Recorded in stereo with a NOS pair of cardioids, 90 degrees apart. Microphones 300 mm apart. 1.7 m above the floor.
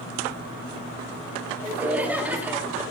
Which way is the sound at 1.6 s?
5° right.